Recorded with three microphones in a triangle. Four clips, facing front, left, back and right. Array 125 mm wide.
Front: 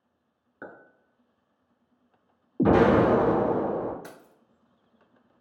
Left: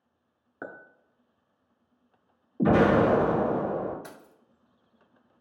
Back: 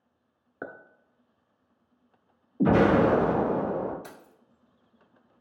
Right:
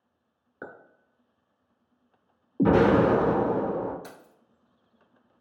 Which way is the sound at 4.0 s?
20° left.